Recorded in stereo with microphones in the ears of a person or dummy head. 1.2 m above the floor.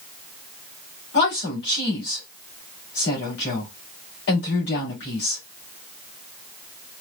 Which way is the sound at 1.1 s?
55° left (ahead or behind).